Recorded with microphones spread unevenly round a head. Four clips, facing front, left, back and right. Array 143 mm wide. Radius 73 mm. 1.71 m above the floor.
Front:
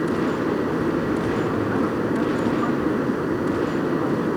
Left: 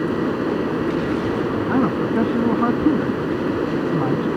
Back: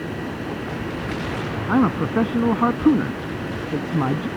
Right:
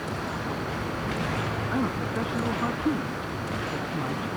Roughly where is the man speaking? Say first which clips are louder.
Left 10 dB, back 2 dB; behind left.